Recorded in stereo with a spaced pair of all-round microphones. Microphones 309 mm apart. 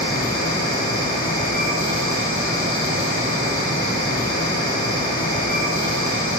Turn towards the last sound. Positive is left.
turn(degrees=30)  # may be behind; listen again after turning